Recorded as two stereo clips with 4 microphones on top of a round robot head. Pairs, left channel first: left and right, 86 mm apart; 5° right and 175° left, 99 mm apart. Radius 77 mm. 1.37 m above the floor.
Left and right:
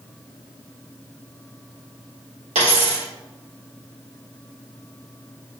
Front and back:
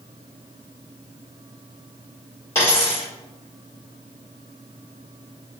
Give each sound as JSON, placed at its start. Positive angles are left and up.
{"t": 2.5, "sound": "a dropped coin", "azimuth_deg": -70, "distance_m": 1.7}